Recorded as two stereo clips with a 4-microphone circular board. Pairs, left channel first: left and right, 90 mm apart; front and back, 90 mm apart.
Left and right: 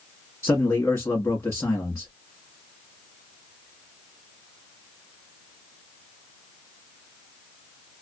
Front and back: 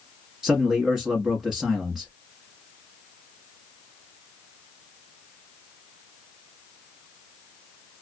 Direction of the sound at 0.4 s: 105° left.